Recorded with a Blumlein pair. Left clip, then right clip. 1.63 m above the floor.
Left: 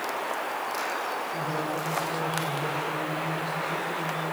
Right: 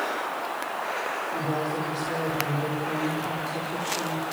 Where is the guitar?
I don't hear a guitar.